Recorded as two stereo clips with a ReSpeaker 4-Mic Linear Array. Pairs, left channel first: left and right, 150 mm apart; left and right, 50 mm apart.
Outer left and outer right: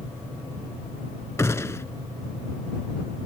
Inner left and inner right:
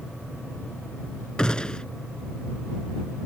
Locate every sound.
1.4 s a gunshot: 20° left (ahead or behind)